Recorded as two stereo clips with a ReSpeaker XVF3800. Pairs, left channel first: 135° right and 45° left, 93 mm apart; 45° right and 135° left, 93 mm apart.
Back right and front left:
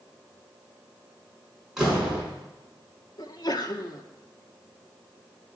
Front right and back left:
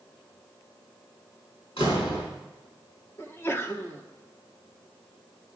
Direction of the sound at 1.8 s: 40° right.